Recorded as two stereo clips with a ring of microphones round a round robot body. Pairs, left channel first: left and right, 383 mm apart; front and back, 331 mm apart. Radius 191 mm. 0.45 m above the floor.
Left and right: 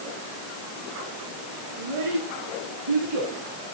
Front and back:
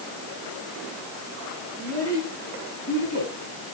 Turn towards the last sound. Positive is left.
turn(degrees=-60)